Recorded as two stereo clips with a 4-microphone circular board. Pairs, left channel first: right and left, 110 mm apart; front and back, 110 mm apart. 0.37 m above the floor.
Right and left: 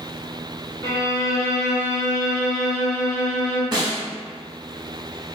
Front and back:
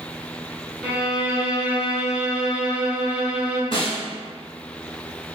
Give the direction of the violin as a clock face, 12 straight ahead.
4 o'clock.